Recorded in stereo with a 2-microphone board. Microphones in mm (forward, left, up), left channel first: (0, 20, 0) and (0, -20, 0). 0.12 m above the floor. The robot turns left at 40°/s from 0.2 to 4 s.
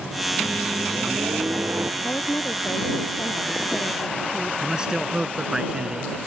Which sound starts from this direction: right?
A microwave, at 0.4 s.